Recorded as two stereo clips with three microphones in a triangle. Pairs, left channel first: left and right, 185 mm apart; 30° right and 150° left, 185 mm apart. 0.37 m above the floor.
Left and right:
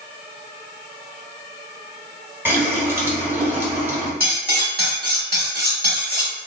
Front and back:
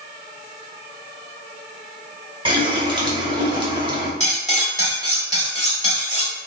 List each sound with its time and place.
2.5 s a running tap: 160° right, 0.8 m
4.2 s cutlery clinking: 75° right, 1.1 m